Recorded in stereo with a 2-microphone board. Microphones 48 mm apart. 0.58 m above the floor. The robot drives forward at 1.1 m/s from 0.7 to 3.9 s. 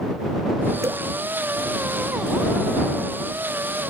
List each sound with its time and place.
0.8 s dripping: 80° right